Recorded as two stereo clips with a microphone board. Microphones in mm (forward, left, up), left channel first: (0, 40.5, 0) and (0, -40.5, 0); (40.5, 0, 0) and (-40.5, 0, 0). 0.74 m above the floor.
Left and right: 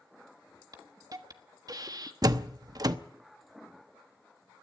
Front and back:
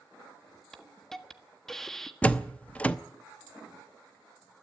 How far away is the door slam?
About 0.8 m.